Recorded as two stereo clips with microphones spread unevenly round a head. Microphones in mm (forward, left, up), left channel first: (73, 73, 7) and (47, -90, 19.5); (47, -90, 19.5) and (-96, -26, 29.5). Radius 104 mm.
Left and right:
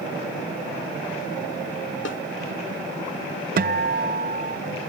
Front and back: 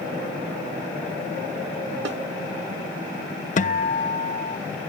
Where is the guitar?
65° right.